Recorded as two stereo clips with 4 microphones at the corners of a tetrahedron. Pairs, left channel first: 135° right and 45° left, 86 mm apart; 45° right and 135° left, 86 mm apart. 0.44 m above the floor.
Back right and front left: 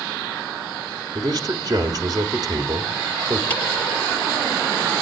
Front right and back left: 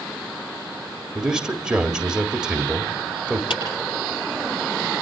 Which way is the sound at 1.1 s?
55° left.